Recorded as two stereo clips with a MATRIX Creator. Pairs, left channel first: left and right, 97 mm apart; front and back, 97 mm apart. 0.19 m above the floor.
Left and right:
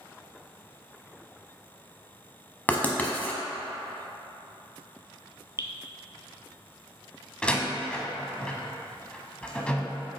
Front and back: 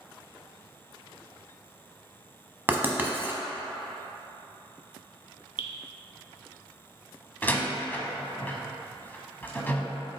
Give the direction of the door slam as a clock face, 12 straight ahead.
11 o'clock.